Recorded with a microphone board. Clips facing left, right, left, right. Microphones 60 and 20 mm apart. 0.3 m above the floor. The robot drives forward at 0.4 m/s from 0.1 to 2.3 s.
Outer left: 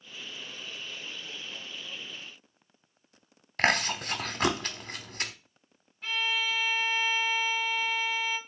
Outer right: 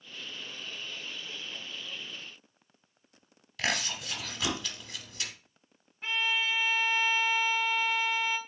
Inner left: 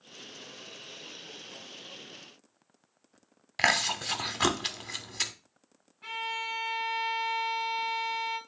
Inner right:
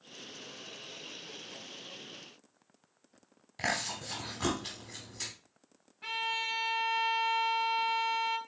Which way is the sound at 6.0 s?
25° right (ahead or behind).